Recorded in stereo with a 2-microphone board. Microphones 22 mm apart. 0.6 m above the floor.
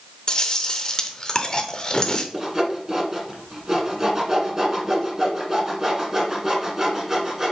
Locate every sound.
0.3 s chewing: 35° left (ahead or behind), 0.8 m
2.3 s sawing: 25° right (ahead or behind), 1.7 m